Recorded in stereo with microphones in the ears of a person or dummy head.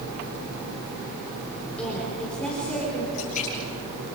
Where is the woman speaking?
5° left (ahead or behind), 4.5 m.